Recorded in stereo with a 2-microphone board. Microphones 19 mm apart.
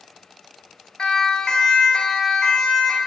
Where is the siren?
45° left (ahead or behind), 3 m; by 3.0 s 35° left (ahead or behind), 4 m.